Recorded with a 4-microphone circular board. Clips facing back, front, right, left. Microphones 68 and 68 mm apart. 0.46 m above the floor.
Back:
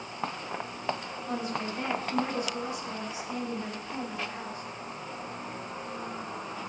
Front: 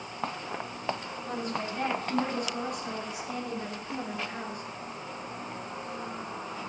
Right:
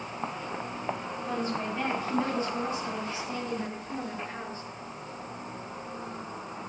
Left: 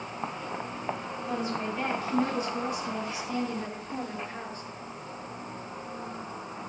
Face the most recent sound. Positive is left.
turn(degrees=-25)